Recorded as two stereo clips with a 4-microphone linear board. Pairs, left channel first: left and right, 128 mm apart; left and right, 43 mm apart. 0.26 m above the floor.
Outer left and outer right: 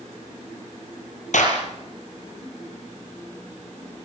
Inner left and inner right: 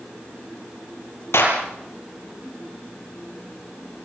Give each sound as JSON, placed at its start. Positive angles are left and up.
{"t": 1.3, "sound": "a clap", "side_deg": 75, "distance_m": 6.5}